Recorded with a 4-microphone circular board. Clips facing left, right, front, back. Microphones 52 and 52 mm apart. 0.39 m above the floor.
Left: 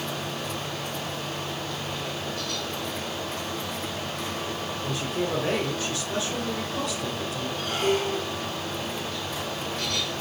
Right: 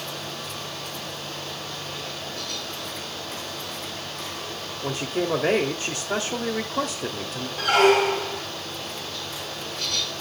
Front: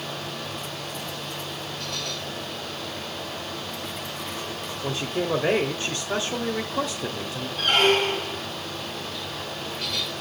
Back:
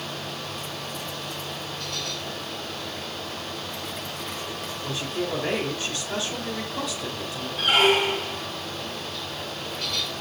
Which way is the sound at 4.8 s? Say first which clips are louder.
Right 4 dB, front 3 dB; 50° right.